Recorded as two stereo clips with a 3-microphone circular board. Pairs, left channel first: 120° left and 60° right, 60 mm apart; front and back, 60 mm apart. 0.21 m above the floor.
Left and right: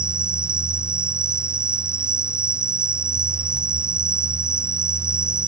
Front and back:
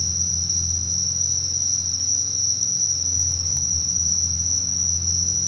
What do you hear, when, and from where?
0.0 s an insect: 90° left